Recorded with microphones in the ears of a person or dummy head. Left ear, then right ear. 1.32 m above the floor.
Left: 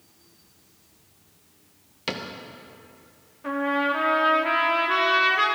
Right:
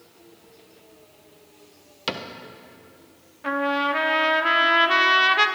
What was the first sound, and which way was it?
A cupboard door, 20° right (ahead or behind).